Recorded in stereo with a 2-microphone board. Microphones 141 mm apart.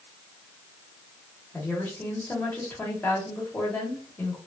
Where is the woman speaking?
10° left (ahead or behind), 1.3 m.